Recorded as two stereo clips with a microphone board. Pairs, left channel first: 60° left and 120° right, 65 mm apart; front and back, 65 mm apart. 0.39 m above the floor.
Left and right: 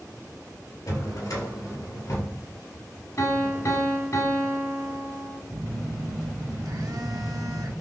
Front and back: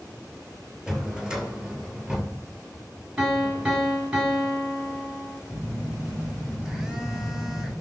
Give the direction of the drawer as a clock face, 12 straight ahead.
9 o'clock.